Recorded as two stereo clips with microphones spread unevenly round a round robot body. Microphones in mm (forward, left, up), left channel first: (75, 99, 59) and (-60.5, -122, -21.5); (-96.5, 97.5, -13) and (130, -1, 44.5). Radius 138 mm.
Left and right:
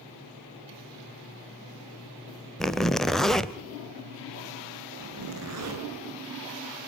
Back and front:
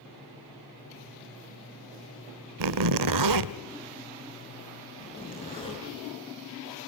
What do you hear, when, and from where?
2.6 s a zipper: 35° right, 0.7 m
5.0 s a zipper: 135° right, 5.5 m